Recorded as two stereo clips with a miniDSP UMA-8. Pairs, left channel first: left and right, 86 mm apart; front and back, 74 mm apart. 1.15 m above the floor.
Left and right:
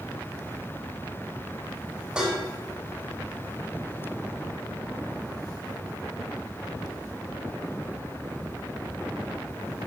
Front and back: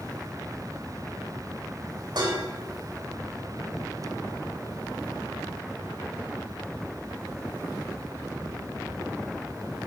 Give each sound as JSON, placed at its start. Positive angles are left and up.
{"t": 2.1, "sound": "dishes clattering", "azimuth_deg": -170, "distance_m": 3.5}